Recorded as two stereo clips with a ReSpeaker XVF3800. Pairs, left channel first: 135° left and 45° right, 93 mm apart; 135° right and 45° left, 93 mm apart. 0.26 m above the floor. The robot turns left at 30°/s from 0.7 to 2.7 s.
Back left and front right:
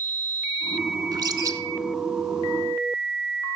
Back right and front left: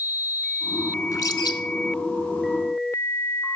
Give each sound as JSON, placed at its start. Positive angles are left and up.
{"t": 1.1, "sound": "a bird", "azimuth_deg": -85, "distance_m": 0.8}